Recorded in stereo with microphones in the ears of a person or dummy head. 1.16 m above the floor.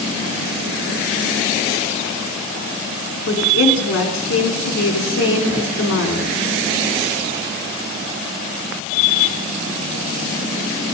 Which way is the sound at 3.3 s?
65° left (ahead or behind).